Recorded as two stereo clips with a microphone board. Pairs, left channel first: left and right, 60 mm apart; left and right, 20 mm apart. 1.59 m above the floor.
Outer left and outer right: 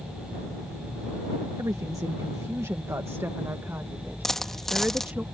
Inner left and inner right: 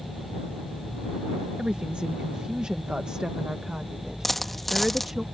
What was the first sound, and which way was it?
A woman speaking, 85° right.